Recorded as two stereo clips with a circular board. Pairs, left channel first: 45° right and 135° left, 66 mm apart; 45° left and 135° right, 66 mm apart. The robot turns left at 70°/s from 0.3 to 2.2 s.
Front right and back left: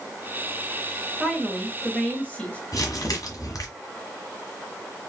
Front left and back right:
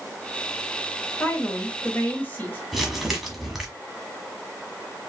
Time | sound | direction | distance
1.2 | a woman speaking | 75° left | 1.2 m
2.7 | crumpling | 50° right | 1.5 m